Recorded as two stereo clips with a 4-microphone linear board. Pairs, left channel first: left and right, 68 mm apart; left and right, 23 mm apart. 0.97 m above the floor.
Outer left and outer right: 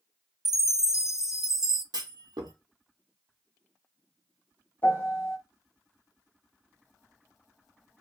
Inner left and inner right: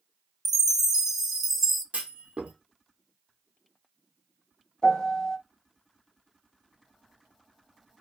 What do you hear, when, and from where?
0.5 s a chime: 10° right (ahead or behind), 0.6 m
1.9 s a clunk: 75° right (ahead or behind), 0.9 m
4.8 s a piano: 30° left (ahead or behind), 0.8 m